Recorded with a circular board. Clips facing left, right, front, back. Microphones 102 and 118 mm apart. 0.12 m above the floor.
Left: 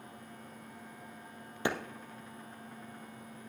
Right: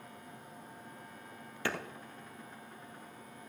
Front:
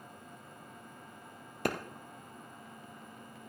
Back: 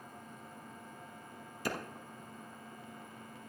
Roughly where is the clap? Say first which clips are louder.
Left 3 dB, front 4 dB; ahead.